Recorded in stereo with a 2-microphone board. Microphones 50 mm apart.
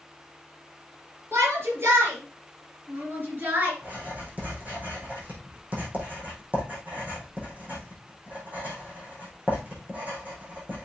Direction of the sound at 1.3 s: 55° right (ahead or behind).